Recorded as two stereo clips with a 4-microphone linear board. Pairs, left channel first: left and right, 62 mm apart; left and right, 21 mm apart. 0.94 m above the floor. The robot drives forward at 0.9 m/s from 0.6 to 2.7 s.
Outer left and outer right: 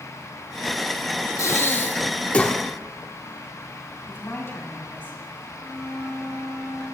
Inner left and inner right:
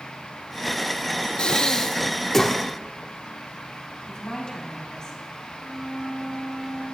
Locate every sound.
1.4 s breathing: 50° left (ahead or behind), 0.7 m; by 2.6 s 20° left (ahead or behind), 1.6 m
4.1 s a woman speaking: 40° left (ahead or behind), 5.5 m
5.5 s a flute: 15° left (ahead or behind), 3 m